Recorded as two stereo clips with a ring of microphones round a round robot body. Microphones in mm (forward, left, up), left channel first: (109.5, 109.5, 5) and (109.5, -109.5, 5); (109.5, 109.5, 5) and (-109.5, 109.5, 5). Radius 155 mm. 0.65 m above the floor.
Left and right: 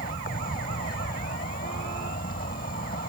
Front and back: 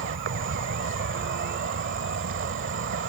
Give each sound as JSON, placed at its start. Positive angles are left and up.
{"t": 0.0, "sound": "an insect", "azimuth_deg": 155}